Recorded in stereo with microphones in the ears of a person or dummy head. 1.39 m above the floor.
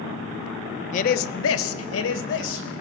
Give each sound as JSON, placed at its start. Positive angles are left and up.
{"t": 0.9, "sound": "a man speaking", "side_deg": 40, "distance_m": 0.6}